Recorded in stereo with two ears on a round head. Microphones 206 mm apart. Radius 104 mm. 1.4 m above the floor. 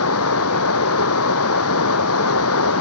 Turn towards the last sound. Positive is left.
turn(degrees=65)  # may be behind; listen again after turning